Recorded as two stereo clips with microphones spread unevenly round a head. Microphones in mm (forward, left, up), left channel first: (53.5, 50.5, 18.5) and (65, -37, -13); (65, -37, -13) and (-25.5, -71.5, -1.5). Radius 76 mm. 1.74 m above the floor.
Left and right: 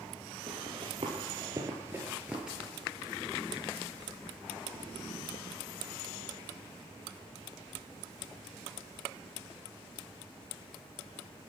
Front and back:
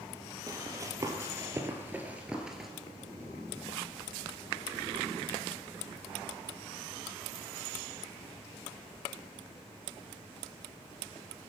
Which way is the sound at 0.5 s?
130° right.